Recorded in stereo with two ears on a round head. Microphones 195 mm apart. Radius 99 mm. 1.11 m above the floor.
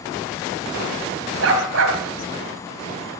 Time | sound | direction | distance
1.4 | a dog barking | 65° right (ahead or behind) | 3 m